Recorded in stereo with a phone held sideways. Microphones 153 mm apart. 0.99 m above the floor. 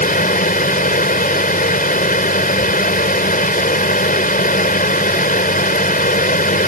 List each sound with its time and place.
0.0 s a fan: 65° left (ahead or behind)